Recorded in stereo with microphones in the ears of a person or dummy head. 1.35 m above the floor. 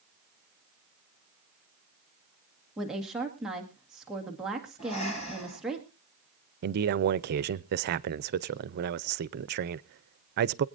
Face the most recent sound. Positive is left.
turn(degrees=-55)  # may be behind; listen again after turning